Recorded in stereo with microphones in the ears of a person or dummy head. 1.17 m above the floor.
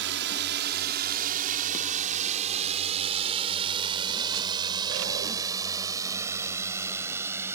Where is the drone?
65° right (ahead or behind); by 7.5 s 15° right (ahead or behind).